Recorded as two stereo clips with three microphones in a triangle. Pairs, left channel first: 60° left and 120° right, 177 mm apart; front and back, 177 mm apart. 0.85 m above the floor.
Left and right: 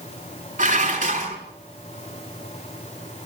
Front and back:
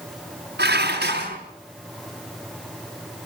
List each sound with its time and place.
0.6 s dishes clattering: 160° right, 5.5 m